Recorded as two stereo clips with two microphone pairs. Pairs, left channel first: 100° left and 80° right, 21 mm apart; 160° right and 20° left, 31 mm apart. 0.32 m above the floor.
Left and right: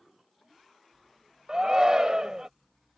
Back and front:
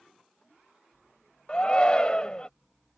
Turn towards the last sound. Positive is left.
turn(degrees=-115)